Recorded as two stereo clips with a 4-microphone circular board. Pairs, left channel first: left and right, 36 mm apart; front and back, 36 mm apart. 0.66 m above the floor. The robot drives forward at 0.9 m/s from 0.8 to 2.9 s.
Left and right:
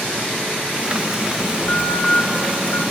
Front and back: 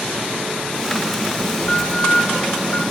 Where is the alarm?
50° left, 7.5 m; by 2.8 s 60° left, 7 m.